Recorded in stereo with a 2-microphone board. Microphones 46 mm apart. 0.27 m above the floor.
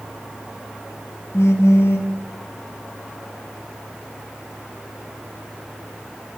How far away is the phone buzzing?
About 3 m.